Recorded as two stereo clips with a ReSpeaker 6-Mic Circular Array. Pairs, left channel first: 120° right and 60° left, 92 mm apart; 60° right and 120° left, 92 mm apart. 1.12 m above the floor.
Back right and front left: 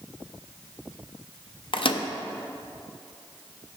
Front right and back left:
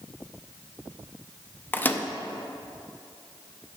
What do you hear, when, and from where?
1.7 s a microwave: 125° right, 0.5 m